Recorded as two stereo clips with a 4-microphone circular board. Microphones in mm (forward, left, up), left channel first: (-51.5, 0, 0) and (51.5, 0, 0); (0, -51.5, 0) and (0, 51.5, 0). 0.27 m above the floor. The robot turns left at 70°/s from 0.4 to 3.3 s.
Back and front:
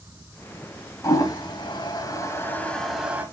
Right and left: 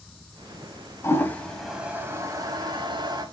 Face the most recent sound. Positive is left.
turn(degrees=65)